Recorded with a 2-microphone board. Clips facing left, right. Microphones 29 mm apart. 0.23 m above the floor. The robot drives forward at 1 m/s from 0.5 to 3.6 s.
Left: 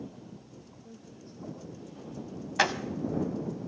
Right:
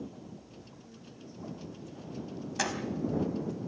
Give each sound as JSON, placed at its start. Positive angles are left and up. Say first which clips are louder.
{"t": 0.8, "sound": "a woman speaking", "louder": "left 1 dB", "side_deg": 65, "distance_m": 6.0}
{"t": 2.6, "sound": "a door slam", "louder": "left 7 dB", "side_deg": 35, "distance_m": 1.2}